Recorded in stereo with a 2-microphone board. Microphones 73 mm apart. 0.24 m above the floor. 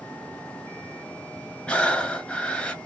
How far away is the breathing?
About 0.7 m.